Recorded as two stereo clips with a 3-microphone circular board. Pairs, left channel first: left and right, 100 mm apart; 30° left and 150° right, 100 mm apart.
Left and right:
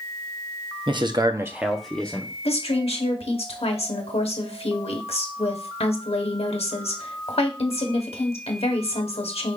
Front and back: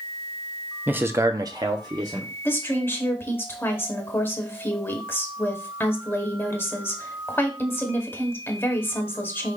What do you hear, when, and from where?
0.9 s a man speaking: 80° right, 0.7 m; by 2.4 s 160° left, 0.9 m
2.5 s a woman speaking: 95° left, 1.0 m